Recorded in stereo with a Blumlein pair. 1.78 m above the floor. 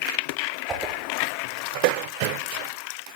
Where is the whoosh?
15° right, 1.1 m.